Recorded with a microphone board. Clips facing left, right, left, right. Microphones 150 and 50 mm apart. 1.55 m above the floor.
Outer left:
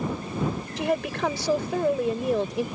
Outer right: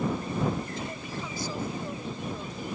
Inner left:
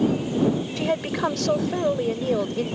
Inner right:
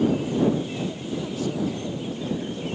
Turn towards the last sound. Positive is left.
turn(degrees=85)